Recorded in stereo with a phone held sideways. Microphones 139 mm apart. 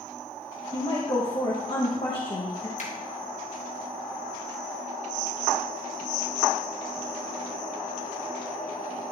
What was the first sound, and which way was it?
A woman speaking, 40° left (ahead or behind).